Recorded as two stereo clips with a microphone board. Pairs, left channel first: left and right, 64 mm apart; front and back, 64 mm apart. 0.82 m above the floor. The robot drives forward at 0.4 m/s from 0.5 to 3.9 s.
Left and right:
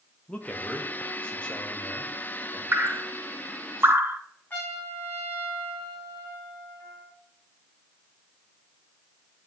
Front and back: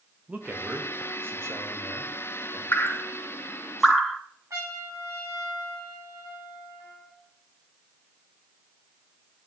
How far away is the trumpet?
About 2.5 m.